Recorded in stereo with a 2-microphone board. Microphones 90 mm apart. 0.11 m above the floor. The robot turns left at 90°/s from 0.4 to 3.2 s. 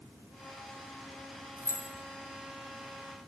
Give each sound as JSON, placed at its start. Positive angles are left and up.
{"t": 1.6, "sound": "keys jangling", "side_deg": -25, "distance_m": 0.9}